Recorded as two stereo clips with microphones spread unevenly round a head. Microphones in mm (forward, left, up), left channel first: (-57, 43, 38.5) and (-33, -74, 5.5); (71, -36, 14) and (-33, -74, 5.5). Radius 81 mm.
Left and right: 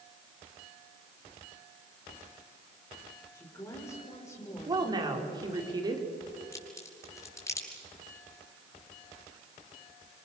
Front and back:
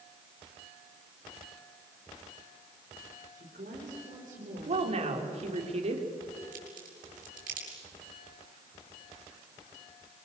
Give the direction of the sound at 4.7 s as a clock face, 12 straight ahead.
4 o'clock.